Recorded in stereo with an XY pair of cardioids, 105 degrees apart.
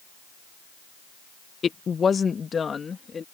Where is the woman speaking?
40° left; by 3.2 s 35° left.